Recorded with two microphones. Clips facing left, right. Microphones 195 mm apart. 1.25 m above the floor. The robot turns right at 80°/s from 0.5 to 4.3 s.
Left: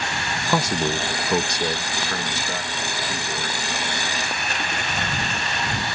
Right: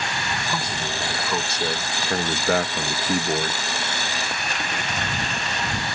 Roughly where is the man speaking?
Left.